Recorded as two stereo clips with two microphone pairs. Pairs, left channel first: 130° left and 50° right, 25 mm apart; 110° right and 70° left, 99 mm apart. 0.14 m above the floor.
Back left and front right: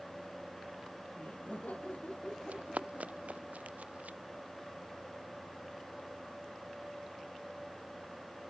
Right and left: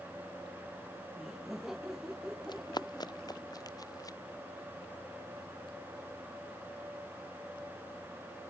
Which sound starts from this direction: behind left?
Laughter, at 1.2 s.